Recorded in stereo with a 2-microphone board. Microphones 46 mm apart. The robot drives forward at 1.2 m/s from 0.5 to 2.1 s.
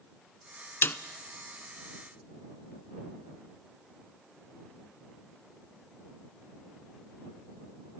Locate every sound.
0.8 s a snare drum: 60° left (ahead or behind), 0.7 m; by 1.0 s 50° left (ahead or behind), 0.7 m